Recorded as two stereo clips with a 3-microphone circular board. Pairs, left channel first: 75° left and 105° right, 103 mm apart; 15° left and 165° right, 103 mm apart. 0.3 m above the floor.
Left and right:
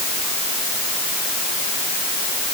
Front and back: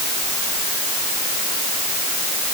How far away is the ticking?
I don't hear ticking.